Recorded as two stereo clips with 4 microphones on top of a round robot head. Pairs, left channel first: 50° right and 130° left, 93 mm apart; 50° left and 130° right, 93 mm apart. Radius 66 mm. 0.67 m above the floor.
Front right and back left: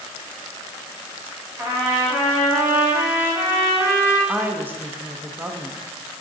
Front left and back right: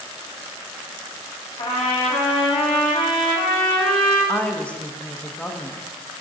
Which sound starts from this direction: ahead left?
A trumpet, at 1.6 s.